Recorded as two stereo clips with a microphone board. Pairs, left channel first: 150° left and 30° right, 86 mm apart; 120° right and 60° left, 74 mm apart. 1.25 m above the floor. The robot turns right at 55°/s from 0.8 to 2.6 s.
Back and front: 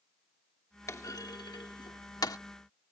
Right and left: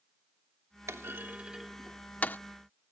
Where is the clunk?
100° left; by 2.4 s 175° right.